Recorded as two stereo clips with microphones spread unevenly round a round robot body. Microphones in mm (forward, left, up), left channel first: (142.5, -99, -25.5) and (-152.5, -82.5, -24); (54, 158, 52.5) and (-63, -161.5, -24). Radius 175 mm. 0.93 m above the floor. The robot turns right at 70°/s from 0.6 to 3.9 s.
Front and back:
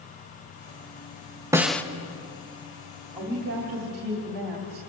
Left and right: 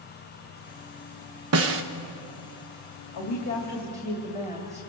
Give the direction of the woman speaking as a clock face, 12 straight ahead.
9 o'clock.